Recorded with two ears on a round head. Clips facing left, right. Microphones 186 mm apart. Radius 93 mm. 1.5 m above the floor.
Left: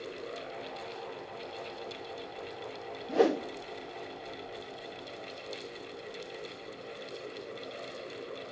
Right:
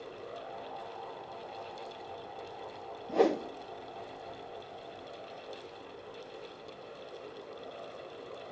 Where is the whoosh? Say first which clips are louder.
Left 1 dB; 5° left (ahead or behind), 0.7 m.